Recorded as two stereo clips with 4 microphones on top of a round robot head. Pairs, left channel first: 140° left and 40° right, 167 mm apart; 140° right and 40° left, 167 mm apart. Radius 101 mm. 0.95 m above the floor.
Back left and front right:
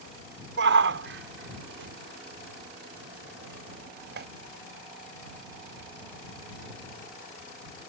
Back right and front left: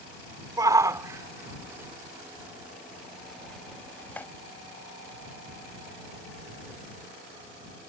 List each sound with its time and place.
0.6 s a shout: 30° right; by 4.3 s 60° right